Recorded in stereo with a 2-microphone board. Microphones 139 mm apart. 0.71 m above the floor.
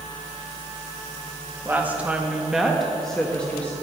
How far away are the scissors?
I don't hear scissors.